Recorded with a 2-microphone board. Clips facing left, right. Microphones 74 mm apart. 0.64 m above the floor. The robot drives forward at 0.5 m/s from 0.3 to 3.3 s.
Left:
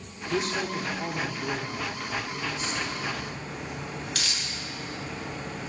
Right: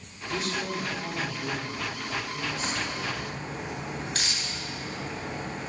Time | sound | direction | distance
0.3 | a man speaking | 35° left (ahead or behind) | 1.7 m
2.5 | a crack | 40° right (ahead or behind) | 2.5 m